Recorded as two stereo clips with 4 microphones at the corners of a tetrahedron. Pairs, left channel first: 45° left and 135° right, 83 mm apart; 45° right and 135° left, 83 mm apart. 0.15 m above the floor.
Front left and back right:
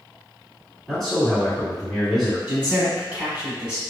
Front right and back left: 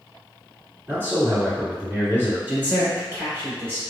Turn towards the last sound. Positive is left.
turn(degrees=170)